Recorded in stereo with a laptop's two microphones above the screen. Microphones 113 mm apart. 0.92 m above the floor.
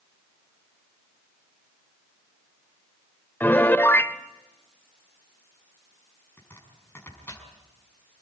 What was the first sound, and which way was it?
A piano, 20° left (ahead or behind).